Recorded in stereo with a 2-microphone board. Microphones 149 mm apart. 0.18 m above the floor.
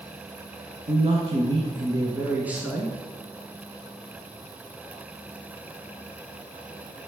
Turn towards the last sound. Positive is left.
turn(degrees=0)  # may be behind; listen again after turning